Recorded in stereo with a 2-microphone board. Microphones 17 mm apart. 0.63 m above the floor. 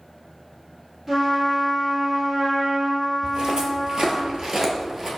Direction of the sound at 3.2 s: 50° right (ahead or behind).